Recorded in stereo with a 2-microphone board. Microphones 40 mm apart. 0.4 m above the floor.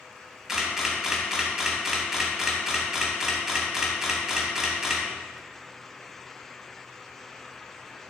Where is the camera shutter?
15° right (ahead or behind), 3 m.